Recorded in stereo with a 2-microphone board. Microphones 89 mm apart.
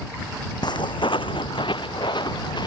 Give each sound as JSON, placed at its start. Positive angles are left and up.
{"t": 0.6, "sound": "footsteps", "side_deg": 60}